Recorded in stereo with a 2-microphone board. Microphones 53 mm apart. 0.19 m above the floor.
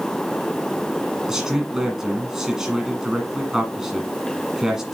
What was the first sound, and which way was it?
A man speaking, 15° right (ahead or behind).